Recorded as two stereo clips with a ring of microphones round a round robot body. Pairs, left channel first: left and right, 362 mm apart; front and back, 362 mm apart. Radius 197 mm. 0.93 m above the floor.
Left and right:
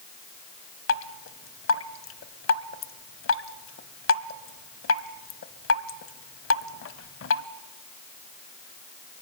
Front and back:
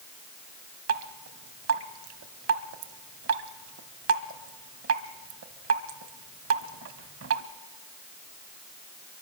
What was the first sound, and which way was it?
Dripping, 135° left.